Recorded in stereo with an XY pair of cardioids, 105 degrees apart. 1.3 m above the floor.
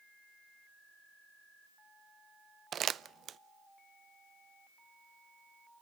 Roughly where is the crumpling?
Ahead right.